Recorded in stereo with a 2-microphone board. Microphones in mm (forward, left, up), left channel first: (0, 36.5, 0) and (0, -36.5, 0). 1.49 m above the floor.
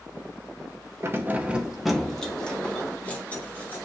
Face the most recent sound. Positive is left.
turn(degrees=25)  # may be behind; listen again after turning